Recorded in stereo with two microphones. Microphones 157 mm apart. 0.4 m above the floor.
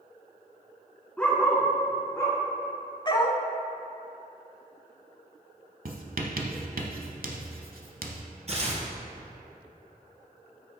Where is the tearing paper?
45° right (ahead or behind), 1.8 m.